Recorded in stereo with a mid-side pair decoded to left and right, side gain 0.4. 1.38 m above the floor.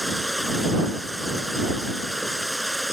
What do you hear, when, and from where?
0.0 s running water: 5° right